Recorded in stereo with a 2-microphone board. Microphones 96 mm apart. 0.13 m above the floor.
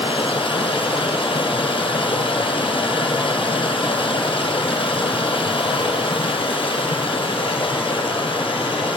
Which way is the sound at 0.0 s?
65° left (ahead or behind).